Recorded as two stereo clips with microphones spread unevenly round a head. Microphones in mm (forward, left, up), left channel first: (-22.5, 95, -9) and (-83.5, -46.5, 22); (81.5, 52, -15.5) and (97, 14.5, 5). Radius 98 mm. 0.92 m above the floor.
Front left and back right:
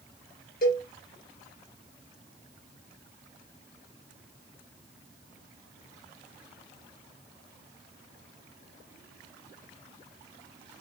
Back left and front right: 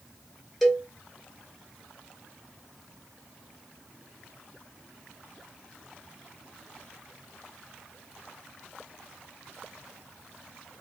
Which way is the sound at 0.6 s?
25° left.